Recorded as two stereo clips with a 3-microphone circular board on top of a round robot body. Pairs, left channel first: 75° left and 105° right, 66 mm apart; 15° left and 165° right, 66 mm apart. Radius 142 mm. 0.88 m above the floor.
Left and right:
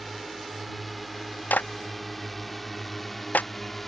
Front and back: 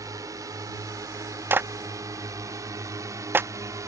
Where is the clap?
140° left.